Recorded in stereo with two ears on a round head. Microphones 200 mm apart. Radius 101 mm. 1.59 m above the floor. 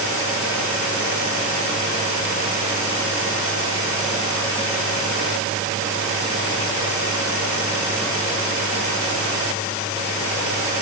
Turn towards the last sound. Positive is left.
No sound to turn to.